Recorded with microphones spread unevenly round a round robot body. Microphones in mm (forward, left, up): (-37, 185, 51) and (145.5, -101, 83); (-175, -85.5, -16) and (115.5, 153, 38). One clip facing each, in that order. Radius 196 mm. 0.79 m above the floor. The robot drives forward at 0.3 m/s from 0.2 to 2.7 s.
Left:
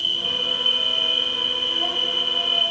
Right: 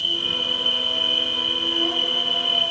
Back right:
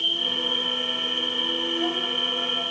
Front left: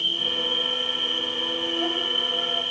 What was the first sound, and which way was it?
An insect, 125° left.